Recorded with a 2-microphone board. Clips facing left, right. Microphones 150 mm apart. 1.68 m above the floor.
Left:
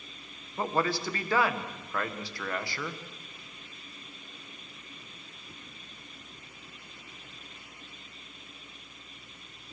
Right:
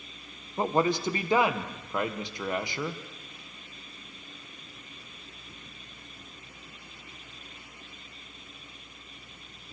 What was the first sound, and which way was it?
A man speaking, 20° right (ahead or behind).